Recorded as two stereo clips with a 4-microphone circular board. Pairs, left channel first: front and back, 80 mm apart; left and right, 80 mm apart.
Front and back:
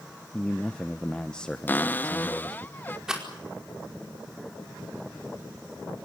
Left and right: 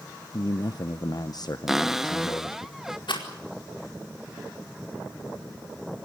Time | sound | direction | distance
0.3 | a man speaking | 75° left | 0.8 m
1.7 | a cupboard door | 10° right | 0.5 m
3.1 | a rattle | 100° left | 4.5 m